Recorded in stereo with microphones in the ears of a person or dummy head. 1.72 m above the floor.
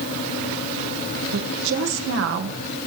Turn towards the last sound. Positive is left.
turn(degrees=-75)  # may be behind; listen again after turning